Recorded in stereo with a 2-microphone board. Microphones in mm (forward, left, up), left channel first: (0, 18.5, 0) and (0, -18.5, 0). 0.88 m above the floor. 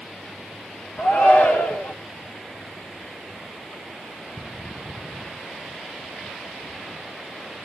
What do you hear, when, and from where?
1.0 s a shout: 70° left (ahead or behind), 2.5 m